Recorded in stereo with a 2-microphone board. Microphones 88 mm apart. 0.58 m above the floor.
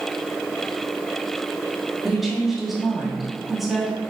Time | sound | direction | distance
2.0 | a woman speaking | 5° right (ahead or behind) | 0.9 m